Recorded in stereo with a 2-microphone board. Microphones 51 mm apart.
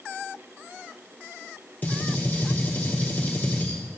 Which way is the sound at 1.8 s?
35° left (ahead or behind).